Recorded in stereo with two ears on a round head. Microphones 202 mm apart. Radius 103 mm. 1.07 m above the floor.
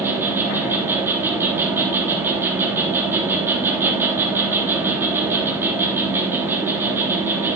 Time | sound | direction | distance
0.0 | an insect | 10° right (ahead or behind) | 3 m